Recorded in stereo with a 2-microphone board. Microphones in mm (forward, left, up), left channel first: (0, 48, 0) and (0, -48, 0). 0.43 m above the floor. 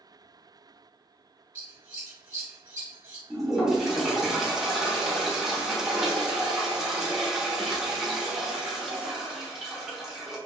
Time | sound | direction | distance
1.6 | scissors | 20° right (ahead or behind) | 1.1 m
3.3 | a toilet flushing | 5° right (ahead or behind) | 1.0 m